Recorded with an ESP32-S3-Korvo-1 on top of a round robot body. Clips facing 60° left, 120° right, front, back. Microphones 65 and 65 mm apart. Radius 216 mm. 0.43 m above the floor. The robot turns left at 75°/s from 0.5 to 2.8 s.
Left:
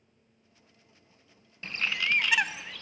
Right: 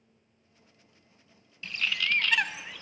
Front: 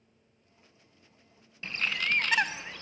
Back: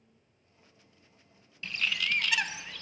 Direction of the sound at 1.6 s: 40° left.